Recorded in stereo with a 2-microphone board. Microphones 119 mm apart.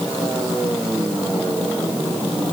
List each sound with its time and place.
Only background noise.